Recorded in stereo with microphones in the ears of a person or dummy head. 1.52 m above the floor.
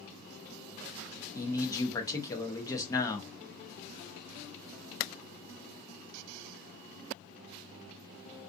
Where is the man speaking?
20° left (ahead or behind), 0.6 m.